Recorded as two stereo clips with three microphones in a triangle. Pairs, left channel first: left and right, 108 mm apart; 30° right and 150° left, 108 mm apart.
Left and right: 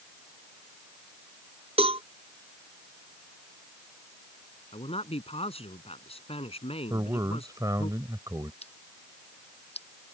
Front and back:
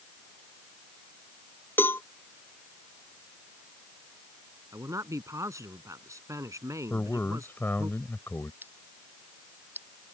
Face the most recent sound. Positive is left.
turn(degrees=80)